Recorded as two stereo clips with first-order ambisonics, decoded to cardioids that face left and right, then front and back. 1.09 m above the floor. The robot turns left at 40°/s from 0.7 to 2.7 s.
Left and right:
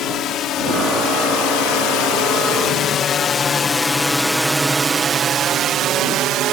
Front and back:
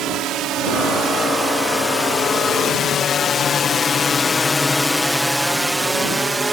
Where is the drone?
140° left; by 6.5 s 105° right.